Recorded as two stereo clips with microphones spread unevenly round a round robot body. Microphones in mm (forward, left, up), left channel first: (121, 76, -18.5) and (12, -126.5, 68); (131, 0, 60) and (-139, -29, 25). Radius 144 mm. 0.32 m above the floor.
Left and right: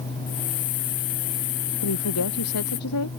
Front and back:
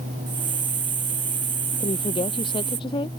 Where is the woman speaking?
80° left.